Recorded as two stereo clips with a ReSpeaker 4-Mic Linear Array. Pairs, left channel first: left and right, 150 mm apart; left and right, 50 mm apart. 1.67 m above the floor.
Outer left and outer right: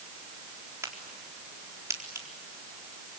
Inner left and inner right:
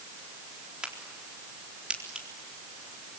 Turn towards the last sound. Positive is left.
turn(degrees=-20)  # may be behind; listen again after turning